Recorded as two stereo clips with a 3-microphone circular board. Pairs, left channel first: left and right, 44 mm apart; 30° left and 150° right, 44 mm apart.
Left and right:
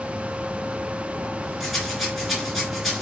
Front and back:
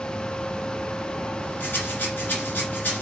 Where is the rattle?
Straight ahead, 3 m.